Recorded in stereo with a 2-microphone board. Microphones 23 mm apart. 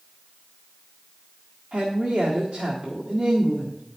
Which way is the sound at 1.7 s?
55° right (ahead or behind).